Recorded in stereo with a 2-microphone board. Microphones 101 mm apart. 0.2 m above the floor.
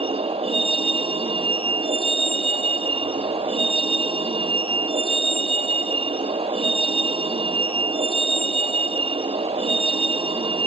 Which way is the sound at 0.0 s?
70° right (ahead or behind).